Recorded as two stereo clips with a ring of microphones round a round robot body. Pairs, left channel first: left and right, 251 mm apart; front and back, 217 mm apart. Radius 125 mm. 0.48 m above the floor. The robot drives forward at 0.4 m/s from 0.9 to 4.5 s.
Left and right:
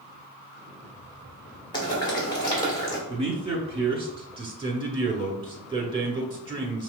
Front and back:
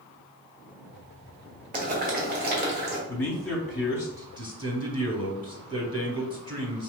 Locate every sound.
1.7 s boiling: 155° left, 1.6 m; by 3.0 s 165° left, 2.0 m
3.1 s a man speaking: 65° right, 1.1 m; by 6.9 s 140° right, 1.1 m